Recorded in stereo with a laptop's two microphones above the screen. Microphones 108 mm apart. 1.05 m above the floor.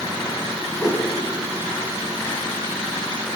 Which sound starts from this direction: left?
A whoosh, at 0.8 s.